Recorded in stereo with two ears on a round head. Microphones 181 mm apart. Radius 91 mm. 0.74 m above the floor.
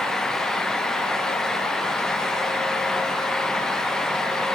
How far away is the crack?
No crack in this recording.